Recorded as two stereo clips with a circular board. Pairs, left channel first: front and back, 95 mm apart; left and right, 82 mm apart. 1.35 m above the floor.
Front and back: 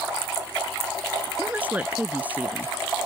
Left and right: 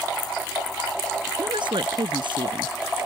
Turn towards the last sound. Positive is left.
turn(degrees=-105)